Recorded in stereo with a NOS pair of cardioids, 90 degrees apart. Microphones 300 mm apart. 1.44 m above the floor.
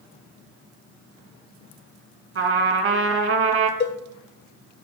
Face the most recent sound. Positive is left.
turn(degrees=35)